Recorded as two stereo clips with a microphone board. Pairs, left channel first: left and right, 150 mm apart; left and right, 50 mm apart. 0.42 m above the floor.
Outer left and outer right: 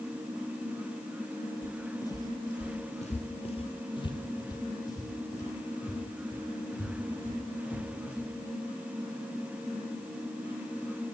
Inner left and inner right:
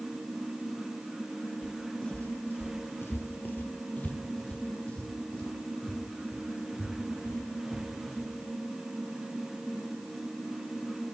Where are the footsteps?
15° left (ahead or behind), 0.8 m.